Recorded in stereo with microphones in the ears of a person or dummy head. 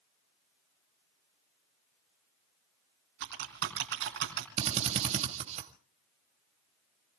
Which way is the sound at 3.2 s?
65° right (ahead or behind).